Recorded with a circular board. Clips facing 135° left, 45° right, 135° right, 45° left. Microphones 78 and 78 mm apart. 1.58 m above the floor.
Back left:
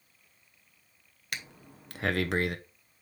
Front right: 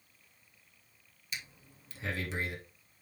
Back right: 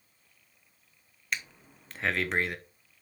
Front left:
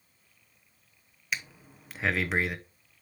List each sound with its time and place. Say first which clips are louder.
1.3 s breathing: back left 5 dB, even; 130° left, 0.7 m